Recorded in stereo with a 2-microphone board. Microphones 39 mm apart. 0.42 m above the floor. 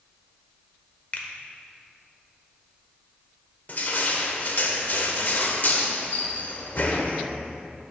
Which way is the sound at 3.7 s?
50° left (ahead or behind).